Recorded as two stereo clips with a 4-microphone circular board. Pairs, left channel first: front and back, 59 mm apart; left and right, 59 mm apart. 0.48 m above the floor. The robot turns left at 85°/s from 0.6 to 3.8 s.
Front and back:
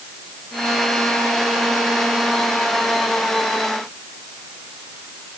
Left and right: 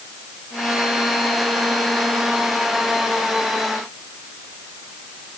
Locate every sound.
Only background noise.